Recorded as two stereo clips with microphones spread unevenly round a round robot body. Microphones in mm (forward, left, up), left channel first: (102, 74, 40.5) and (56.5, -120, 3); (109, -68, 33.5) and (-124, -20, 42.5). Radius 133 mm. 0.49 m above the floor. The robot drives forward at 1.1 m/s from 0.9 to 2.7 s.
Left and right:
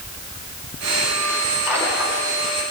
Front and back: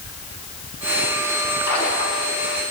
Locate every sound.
1.7 s a splash: 20° right, 8 m; by 2.3 s 25° right, 7.5 m